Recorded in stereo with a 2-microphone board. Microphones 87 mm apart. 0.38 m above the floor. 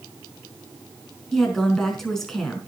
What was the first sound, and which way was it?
A woman speaking, 5° left (ahead or behind).